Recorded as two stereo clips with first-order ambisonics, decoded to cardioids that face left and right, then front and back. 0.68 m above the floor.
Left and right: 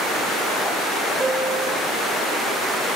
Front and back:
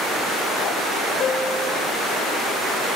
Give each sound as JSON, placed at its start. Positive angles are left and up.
{"t": 1.2, "sound": "a piano", "azimuth_deg": -40, "distance_m": 1.2}